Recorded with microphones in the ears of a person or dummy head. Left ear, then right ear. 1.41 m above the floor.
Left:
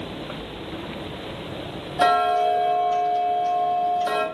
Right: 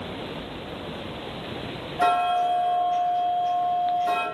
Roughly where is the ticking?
Left.